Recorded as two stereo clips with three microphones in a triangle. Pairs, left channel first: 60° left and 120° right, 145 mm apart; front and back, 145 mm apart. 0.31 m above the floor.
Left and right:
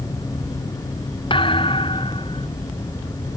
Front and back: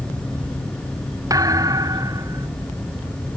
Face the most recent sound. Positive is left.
turn(degrees=115)